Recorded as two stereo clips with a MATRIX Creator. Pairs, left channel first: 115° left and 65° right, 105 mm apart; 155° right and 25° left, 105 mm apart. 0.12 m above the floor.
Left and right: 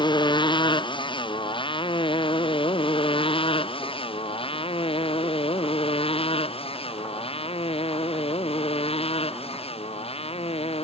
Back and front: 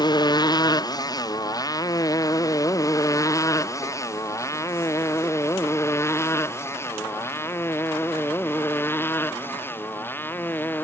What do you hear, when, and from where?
0.0 s a motorcycle: 155° left; by 10.8 s 130° left